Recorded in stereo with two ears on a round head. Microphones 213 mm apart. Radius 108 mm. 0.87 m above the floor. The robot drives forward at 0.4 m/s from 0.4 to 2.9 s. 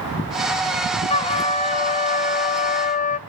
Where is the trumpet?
25° left (ahead or behind), 0.9 m; by 3.2 s 35° left (ahead or behind), 0.7 m.